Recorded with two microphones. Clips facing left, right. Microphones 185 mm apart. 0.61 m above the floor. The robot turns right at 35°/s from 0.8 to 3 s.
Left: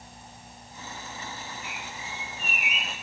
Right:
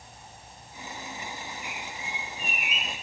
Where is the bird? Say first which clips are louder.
Right 1 dB; 30° left, 1.9 m; by 2.9 s 75° left, 1.9 m.